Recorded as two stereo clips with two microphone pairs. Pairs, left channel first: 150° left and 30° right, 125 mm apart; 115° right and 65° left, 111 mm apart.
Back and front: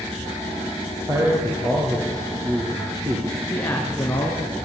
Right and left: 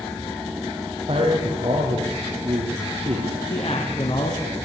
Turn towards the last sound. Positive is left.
turn(degrees=-135)